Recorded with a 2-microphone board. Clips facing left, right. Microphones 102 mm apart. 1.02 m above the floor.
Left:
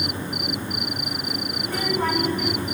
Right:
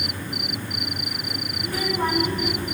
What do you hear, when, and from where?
1.6 s a child speaking: 20° right (ahead or behind), 6.5 m